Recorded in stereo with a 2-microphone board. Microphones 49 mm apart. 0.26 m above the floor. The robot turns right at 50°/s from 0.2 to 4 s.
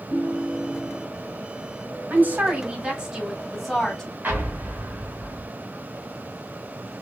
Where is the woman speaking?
75° right, 1.2 m; by 4.1 s 20° left, 1.2 m.